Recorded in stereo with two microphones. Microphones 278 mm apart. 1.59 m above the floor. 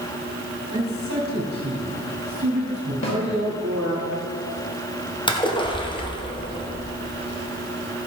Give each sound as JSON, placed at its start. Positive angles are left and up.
{"t": 0.7, "sound": "a man speaking", "side_deg": -90, "distance_m": 4.0}
{"t": 3.0, "sound": "a snare drum", "side_deg": 70, "distance_m": 2.5}
{"t": 5.3, "sound": "a splash", "side_deg": 15, "distance_m": 1.2}